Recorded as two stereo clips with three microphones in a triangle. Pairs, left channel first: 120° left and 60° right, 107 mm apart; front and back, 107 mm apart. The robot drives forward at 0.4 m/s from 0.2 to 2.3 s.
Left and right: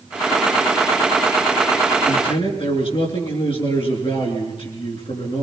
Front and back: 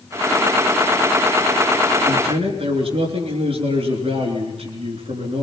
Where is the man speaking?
150° left, 5.5 m.